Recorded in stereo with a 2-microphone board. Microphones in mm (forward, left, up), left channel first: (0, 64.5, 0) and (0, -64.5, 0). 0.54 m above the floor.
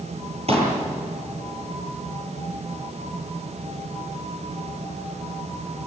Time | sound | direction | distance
0.5 | a pop | 50° right (ahead or behind) | 9 m